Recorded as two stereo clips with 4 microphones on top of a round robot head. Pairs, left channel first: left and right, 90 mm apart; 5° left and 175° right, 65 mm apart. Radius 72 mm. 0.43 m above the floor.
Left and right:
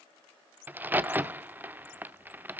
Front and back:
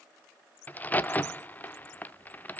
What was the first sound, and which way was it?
A crack, 35° right.